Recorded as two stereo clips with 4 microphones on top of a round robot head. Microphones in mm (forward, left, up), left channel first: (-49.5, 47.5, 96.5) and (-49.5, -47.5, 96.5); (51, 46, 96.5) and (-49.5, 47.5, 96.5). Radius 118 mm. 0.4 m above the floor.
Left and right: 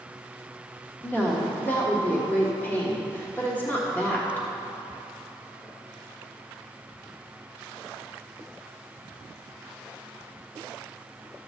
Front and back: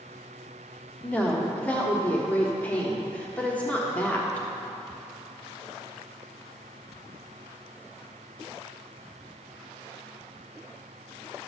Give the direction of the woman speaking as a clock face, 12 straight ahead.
10 o'clock.